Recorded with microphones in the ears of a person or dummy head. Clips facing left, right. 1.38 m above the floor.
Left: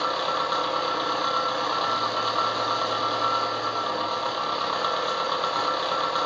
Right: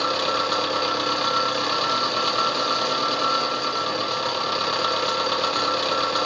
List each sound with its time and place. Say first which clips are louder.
0.0 s an engine running: right 3 dB; 35° right (ahead or behind), 0.9 m